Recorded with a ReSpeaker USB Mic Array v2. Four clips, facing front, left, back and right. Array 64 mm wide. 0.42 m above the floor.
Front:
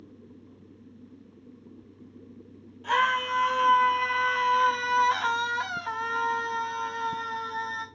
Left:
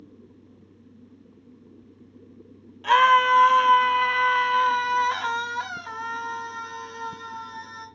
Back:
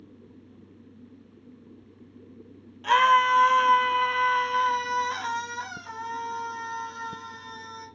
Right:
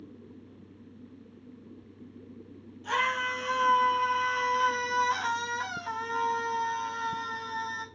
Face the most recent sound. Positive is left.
turn(degrees=-25)